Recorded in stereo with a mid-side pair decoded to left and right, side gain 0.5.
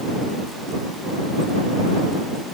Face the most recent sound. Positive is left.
No sound to turn to.